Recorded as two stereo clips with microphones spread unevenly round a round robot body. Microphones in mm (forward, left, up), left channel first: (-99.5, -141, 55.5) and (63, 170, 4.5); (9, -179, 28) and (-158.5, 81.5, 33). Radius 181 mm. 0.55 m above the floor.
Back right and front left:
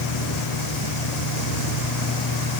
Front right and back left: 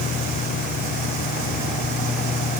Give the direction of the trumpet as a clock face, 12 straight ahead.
No trumpet in this recording.